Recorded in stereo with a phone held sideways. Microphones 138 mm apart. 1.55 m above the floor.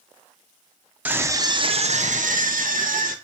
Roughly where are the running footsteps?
No running footsteps in this recording.